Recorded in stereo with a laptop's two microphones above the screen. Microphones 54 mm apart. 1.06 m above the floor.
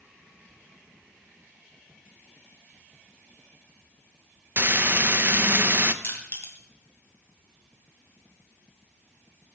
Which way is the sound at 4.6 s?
40° right (ahead or behind).